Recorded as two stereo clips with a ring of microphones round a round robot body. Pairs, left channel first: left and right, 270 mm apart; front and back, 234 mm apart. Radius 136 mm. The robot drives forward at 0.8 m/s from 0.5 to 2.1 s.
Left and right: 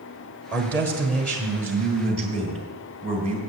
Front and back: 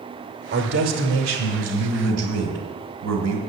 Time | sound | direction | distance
0.5 | a man speaking | 170° left | 1.1 m